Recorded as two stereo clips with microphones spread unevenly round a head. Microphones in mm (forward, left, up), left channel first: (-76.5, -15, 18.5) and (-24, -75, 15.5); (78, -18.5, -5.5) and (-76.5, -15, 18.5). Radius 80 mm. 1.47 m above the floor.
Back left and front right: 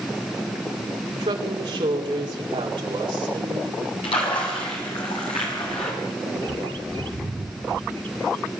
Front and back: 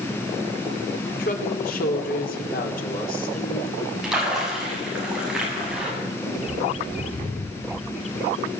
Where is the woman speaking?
30° right, 4 m.